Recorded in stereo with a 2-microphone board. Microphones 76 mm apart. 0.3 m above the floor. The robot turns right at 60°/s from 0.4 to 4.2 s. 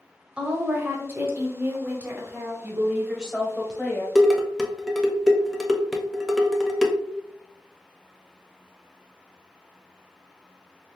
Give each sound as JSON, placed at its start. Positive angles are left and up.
{"t": 0.4, "sound": "a woman speaking", "side_deg": -15, "distance_m": 0.9}
{"t": 2.6, "sound": "a woman speaking", "azimuth_deg": -50, "distance_m": 1.0}
{"t": 4.2, "sound": "dishes clattering", "side_deg": -5, "distance_m": 0.5}